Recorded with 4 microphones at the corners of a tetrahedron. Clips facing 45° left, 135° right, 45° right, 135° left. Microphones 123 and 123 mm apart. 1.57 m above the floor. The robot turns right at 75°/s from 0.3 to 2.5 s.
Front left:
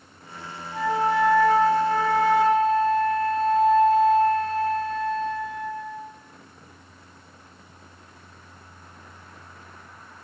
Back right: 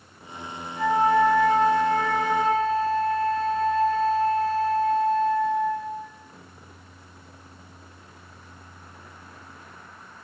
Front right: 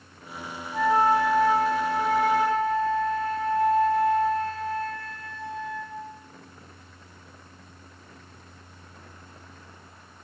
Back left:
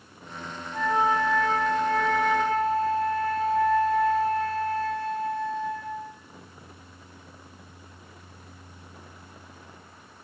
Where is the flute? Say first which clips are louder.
Back right 2 dB, front right 3 dB; 30° left, 0.5 m; by 6.1 s 165° left, 0.5 m.